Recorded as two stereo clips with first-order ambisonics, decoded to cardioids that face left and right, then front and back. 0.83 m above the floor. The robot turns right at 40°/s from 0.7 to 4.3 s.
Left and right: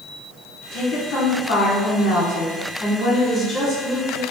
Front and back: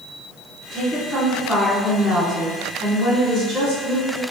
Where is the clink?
No clink in this recording.